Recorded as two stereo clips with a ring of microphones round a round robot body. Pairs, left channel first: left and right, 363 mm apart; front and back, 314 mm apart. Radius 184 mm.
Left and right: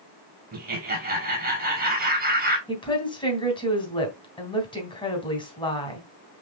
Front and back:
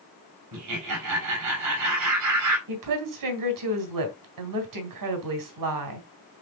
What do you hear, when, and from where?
0.5 s laughter: 155° right, 2.5 m
2.7 s a woman speaking: 165° left, 3 m